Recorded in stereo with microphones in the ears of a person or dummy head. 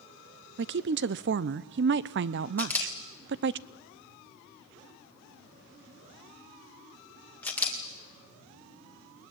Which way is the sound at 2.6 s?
5° left (ahead or behind).